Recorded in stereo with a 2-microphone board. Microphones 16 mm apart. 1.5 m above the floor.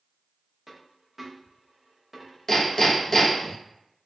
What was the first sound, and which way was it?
A dropped coin, 5° right (ahead or behind).